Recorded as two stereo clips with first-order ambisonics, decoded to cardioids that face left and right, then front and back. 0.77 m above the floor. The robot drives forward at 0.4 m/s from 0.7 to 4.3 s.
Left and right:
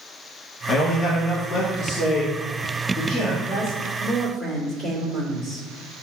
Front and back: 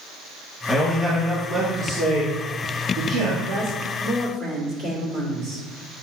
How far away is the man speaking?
About 0.8 m.